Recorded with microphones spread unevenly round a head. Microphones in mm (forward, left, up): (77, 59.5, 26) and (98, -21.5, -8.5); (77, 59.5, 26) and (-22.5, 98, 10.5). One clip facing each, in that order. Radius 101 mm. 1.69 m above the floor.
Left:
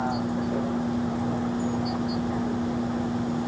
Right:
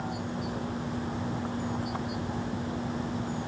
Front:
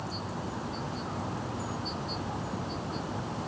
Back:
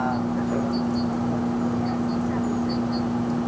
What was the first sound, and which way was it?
A vehicle, 155° left.